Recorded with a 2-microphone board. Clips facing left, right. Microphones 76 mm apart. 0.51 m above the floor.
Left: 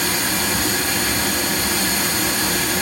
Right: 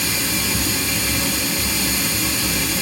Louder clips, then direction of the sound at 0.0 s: Left 2 dB; 60° left (ahead or behind).